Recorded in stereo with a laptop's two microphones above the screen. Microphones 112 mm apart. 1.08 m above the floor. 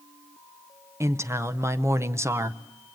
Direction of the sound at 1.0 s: 25° right (ahead or behind).